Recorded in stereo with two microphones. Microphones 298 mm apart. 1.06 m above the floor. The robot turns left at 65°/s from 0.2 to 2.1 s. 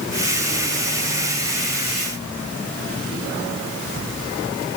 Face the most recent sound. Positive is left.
No sound to turn to.